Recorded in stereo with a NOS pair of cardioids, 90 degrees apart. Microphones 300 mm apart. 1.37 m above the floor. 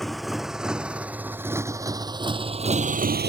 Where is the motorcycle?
Straight ahead; by 3.3 s 35° right.